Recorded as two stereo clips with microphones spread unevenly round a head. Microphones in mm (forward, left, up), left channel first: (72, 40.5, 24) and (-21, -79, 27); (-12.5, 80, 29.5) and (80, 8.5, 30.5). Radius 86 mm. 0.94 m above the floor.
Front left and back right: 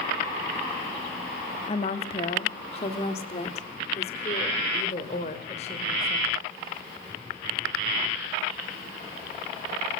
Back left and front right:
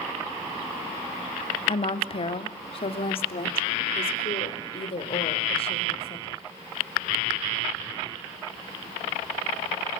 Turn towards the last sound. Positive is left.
turn(degrees=105)